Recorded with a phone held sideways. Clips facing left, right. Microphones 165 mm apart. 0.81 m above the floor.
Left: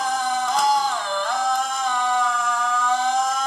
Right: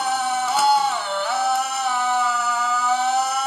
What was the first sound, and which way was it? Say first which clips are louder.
A machine running: even; 5° right (ahead or behind).